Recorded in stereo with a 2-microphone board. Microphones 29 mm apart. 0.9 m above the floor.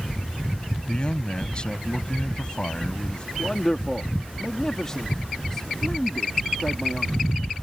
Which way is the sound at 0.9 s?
30° left (ahead or behind).